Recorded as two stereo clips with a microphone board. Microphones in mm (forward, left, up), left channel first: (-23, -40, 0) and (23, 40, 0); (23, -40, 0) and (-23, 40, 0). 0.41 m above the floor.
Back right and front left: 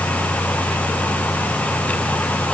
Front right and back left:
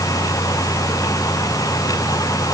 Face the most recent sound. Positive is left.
No sound to turn to.